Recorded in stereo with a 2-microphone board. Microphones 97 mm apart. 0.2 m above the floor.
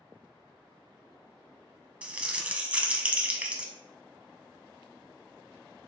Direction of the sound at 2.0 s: 15° right (ahead or behind).